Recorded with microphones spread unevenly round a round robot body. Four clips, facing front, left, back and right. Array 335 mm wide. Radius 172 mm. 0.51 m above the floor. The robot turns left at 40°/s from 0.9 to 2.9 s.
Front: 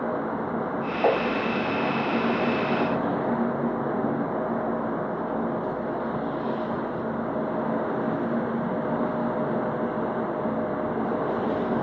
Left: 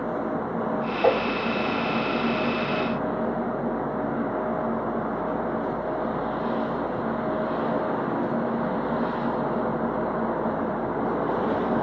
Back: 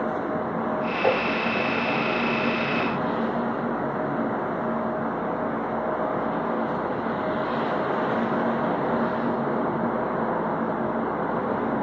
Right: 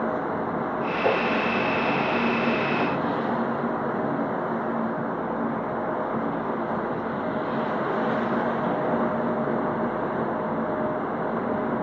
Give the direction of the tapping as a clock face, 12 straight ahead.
11 o'clock.